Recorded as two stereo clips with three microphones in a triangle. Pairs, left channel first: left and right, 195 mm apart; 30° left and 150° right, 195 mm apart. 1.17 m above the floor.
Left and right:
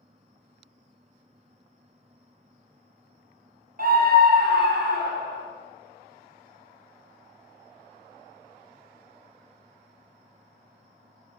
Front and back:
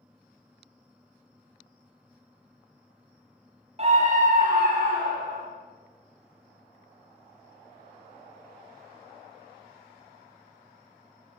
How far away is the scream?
About 0.7 m.